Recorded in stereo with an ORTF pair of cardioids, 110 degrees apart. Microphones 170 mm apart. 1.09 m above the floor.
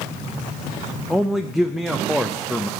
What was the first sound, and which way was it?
A man speaking, straight ahead.